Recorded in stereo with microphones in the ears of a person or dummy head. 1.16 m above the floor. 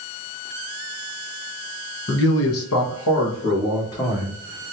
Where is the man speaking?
45° left (ahead or behind), 1.0 m; by 4.7 s 55° left (ahead or behind), 3 m.